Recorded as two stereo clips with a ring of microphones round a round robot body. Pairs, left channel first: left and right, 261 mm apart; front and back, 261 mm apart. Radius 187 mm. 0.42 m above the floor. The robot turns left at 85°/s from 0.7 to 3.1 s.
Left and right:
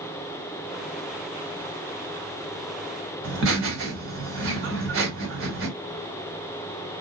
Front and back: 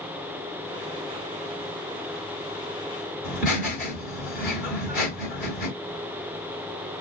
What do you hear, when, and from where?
3.2 s laughter: 95° right, 1.8 m